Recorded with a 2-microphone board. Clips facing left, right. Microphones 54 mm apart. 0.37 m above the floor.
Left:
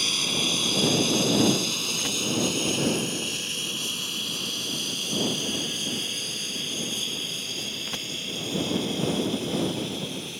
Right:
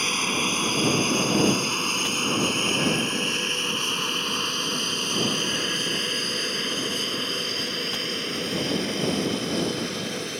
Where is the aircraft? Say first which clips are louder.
Right 3 dB; 35° right (ahead or behind); by 10.4 s 60° right (ahead or behind).